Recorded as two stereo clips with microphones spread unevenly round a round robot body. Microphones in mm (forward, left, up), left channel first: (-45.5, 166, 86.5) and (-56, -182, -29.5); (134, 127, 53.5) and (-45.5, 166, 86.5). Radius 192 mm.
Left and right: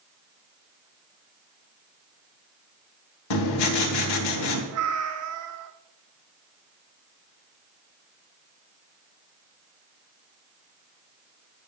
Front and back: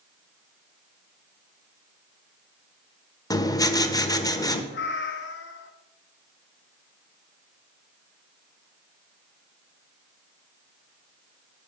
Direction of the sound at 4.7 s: 40° right.